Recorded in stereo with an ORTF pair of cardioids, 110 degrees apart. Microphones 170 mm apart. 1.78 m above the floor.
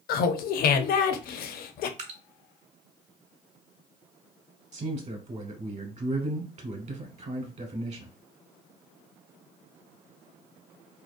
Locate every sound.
0.1 s laughter: 60° left, 0.6 m
2.0 s dripping: 45° right, 0.9 m
4.7 s a man speaking: 40° right, 1.1 m